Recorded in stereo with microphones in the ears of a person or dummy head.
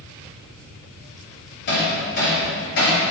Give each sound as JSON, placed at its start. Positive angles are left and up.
{"t": 1.7, "sound": "hammering", "side_deg": 60, "distance_m": 4.5}